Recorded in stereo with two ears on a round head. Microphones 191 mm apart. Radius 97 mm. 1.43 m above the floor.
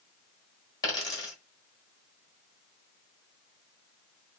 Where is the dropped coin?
20° left (ahead or behind), 1.4 m.